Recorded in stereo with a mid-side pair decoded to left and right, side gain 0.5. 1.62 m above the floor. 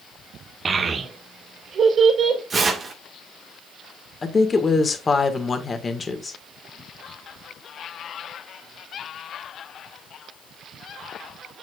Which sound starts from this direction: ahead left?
A woman speaking, at 4.2 s.